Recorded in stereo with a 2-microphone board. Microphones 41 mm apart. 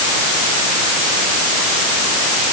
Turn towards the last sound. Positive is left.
No sound to turn to.